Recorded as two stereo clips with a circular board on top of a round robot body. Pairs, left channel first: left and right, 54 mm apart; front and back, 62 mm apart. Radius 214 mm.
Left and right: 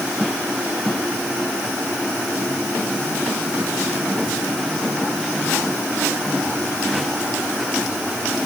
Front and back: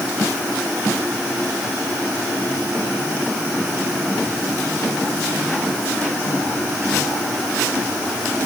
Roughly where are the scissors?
I don't hear scissors.